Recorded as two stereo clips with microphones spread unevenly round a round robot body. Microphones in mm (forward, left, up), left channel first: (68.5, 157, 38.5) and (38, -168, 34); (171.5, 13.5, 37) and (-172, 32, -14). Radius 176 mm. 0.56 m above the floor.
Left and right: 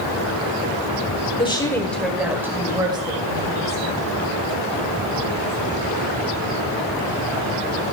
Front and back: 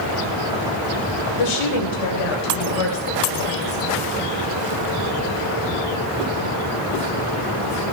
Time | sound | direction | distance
1.4 | a woman speaking | 10° left | 1.6 m